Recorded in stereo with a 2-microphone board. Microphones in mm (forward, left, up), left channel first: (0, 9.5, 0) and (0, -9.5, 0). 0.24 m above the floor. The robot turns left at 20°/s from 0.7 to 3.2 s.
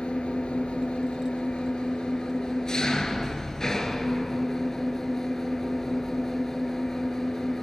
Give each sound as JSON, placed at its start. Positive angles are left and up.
{"t": 0.0, "sound": "an engine running", "azimuth_deg": 85, "distance_m": 1.9}